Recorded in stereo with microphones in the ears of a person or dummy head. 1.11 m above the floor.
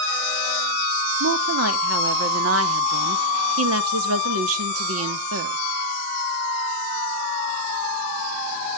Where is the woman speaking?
80° right, 1.4 m.